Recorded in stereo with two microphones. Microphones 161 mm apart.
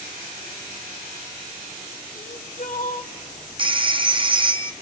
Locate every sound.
2.1 s crying: 65° left (ahead or behind), 1.8 m
3.6 s a phone ringing: 30° right (ahead or behind), 0.5 m